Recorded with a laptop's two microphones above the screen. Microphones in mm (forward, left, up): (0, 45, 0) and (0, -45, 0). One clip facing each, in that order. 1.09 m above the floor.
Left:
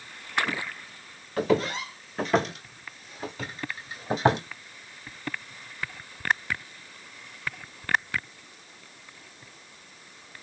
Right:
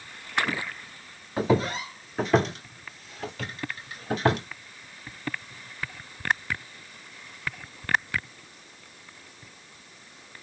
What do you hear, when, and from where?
1.4 s footsteps: 15° right (ahead or behind), 1.2 m; by 4.4 s 20° left (ahead or behind), 1.4 m